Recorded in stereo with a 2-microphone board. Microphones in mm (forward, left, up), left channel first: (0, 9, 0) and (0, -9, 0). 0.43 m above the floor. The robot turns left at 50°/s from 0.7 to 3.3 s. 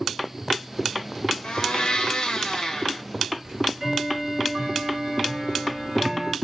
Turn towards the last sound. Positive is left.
turn(degrees=-50)  # may be behind; listen again after turning